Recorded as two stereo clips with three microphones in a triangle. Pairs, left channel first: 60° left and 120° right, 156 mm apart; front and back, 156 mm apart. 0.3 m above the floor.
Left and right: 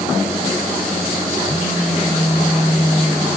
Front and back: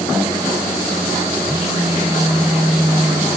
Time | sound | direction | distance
1.4 | a phone buzzing | 100° left | 1.1 m